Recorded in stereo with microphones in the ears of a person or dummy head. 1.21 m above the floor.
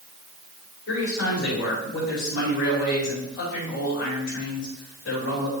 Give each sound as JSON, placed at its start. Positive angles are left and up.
{"t": 0.9, "sound": "a man speaking", "side_deg": 70, "distance_m": 5.0}